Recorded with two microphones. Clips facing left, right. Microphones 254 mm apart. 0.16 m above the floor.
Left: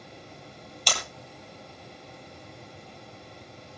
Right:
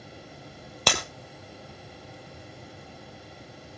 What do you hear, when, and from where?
0.9 s breaking glass: 75° right (ahead or behind), 1.9 m